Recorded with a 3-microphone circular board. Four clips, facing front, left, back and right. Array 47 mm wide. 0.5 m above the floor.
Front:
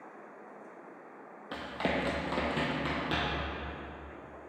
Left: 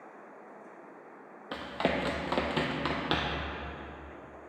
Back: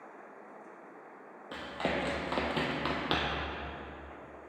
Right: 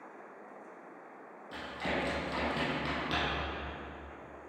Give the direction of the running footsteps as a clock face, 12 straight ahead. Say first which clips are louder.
Left 5 dB, front 1 dB; 9 o'clock.